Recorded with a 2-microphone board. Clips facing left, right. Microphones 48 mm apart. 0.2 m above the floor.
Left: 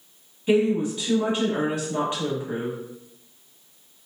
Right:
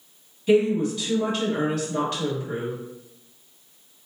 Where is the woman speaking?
25° left (ahead or behind), 1.0 m.